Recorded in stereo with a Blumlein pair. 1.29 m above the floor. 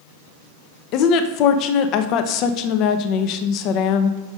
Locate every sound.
0.9 s a woman speaking: 40° left, 0.7 m